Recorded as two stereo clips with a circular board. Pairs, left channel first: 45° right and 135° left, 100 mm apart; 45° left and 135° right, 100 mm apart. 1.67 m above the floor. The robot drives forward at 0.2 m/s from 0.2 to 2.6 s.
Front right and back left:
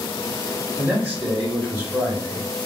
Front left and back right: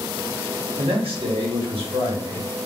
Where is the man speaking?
145° right, 0.8 m; by 2.5 s 155° right, 1.1 m.